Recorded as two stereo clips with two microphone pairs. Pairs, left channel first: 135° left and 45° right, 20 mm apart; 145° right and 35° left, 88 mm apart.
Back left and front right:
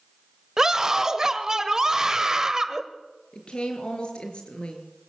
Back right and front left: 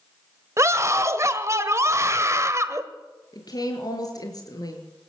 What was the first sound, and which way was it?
A scream, 5° left.